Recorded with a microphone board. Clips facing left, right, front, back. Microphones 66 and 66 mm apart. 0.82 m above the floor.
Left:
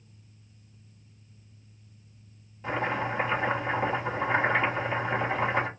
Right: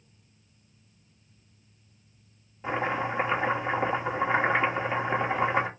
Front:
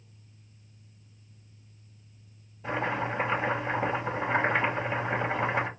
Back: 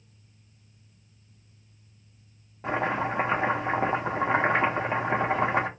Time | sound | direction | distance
2.6 | chopping | 160° right | 1.6 m